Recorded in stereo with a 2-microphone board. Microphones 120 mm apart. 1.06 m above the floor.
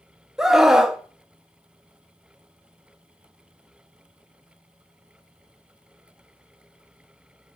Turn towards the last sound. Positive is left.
turn(degrees=-5)  # may be behind; listen again after turning